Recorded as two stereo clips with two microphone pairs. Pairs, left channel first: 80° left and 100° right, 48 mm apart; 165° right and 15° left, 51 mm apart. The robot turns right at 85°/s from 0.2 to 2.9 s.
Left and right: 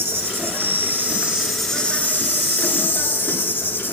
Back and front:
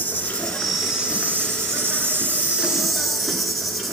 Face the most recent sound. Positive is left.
turn(degrees=105)